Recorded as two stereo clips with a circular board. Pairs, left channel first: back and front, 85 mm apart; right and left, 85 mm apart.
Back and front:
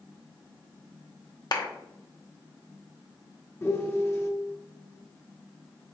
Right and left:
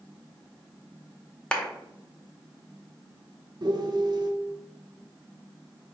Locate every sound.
1.5 s a clap: 165° right, 0.8 m
3.6 s a piano: 120° left, 0.7 m